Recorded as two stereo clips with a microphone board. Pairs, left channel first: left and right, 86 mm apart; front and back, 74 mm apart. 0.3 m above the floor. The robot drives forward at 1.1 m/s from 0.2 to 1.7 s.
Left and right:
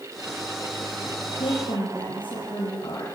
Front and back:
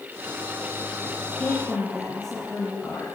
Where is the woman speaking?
75° left, 7.5 m; by 3.1 s 80° left, 7.5 m.